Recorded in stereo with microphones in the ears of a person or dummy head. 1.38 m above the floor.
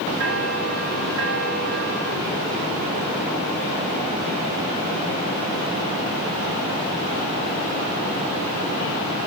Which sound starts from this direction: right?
A bell, at 0.2 s.